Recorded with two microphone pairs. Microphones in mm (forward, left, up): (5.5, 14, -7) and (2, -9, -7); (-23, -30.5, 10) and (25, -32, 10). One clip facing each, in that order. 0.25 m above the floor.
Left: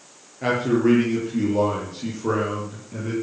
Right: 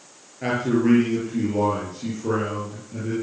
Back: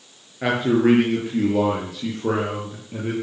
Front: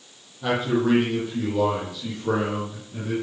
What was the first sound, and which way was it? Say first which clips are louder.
A man speaking: left 1 dB, back 4 dB; 170° left.